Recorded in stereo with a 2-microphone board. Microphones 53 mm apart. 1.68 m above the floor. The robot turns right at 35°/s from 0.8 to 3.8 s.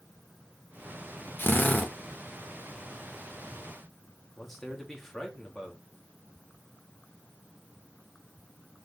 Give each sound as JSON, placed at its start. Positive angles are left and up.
{"t": 1.4, "sound": "a drill", "side_deg": 45, "distance_m": 2.5}
{"t": 4.4, "sound": "a man speaking", "side_deg": 5, "distance_m": 4.0}